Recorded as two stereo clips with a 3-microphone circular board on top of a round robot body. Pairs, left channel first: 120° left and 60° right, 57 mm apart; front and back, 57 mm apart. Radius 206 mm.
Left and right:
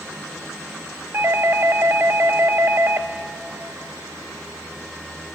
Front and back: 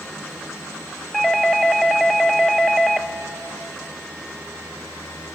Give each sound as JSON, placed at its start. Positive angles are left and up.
{"t": 1.1, "sound": "a doorbell", "azimuth_deg": -80, "distance_m": 1.1}